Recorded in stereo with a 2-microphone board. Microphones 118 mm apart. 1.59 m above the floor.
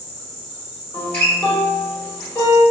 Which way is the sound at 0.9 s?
15° left (ahead or behind).